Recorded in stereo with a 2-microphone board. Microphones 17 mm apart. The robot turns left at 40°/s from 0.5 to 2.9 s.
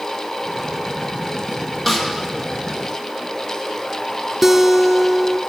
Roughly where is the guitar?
Right.